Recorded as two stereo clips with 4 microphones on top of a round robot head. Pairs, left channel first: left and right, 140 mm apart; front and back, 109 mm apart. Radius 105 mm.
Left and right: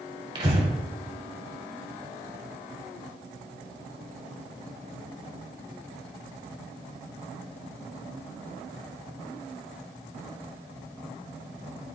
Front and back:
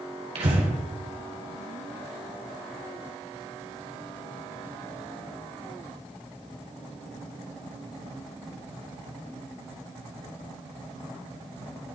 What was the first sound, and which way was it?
Breathing, 150° right.